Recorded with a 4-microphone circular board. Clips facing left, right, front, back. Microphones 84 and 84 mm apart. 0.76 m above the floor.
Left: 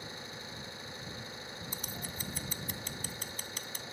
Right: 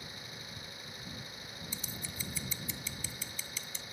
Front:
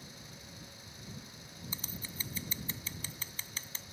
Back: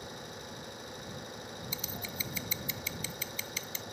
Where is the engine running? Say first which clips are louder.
Left 3 dB, back 8 dB; 155° left.